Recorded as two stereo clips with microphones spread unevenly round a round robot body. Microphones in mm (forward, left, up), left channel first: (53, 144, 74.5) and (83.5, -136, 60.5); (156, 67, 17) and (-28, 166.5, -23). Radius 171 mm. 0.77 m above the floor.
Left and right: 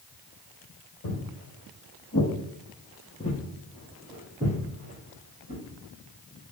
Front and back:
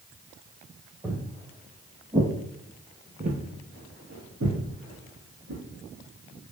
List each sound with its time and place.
1.0 s footsteps: 65° left, 1.5 m; by 5.6 s 150° right, 1.7 m